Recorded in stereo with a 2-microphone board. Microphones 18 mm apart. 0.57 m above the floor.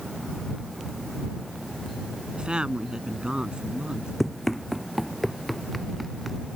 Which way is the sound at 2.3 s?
50° right (ahead or behind).